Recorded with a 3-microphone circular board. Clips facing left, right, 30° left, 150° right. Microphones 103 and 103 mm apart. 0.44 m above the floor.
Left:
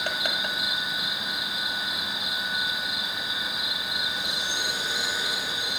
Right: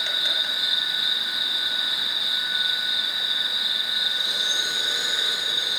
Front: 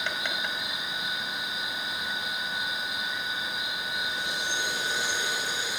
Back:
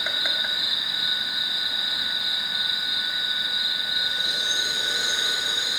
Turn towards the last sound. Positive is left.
turn(degrees=125)